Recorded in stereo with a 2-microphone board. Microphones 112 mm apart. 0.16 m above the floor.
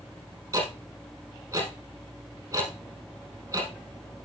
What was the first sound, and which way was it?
Ticking, 30° right (ahead or behind).